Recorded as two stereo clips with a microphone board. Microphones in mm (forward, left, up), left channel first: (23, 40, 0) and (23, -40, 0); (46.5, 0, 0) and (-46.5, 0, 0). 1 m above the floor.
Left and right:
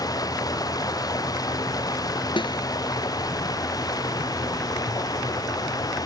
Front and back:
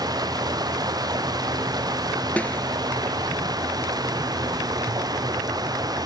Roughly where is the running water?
Behind left.